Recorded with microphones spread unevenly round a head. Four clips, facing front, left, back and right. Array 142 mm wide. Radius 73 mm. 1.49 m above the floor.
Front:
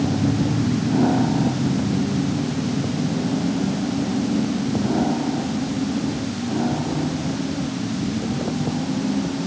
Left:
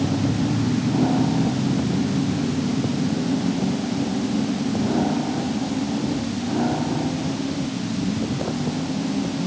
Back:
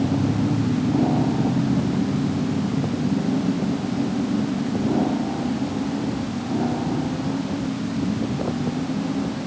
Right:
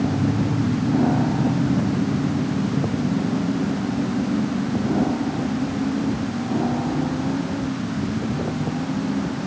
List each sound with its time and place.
Only background noise.